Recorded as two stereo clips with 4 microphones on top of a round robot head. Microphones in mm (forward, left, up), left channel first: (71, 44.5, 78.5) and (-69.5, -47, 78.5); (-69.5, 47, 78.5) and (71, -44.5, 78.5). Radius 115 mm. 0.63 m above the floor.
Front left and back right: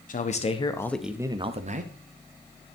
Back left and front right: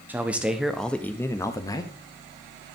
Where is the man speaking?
45° left, 1.6 m; by 1.9 s 150° right, 1.6 m.